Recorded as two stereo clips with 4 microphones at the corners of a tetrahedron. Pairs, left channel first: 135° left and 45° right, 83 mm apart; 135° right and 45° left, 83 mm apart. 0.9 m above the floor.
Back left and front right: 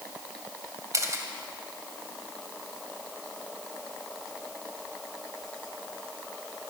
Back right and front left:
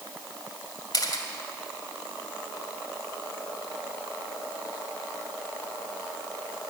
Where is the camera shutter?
95° right, 2 m.